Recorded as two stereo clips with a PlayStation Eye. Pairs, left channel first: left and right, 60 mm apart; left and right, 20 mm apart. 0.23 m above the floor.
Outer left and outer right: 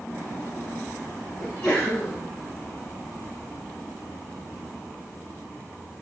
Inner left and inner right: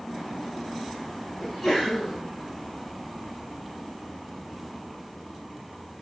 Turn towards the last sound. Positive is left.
turn(degrees=5)  # may be behind; listen again after turning